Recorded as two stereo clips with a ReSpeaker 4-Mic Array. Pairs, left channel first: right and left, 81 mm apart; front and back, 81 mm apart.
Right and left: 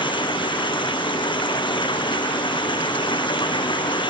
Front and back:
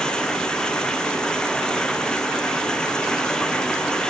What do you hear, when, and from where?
0.0 s running water: 80° right